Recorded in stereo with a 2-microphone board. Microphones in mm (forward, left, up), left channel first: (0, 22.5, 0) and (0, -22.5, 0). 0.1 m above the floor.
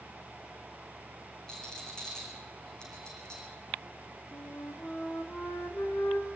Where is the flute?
55° left (ahead or behind), 3 m.